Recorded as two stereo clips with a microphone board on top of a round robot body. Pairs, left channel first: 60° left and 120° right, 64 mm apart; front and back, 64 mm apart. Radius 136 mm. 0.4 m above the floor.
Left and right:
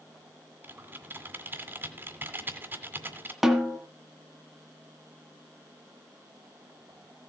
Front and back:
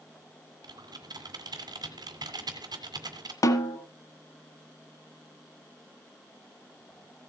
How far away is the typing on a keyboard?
About 2 m.